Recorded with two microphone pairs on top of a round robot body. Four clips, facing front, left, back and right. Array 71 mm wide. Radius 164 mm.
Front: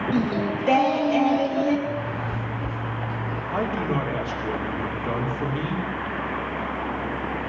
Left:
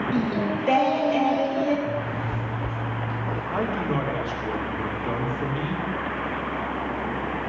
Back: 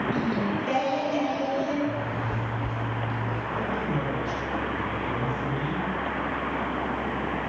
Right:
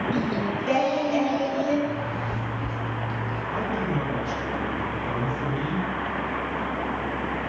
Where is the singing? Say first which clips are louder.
Left 1 dB, front 3 dB; 35° left, 2.5 m.